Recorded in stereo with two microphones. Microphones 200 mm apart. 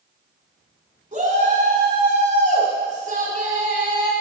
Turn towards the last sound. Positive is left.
turn(degrees=-40)  # may be behind; listen again after turning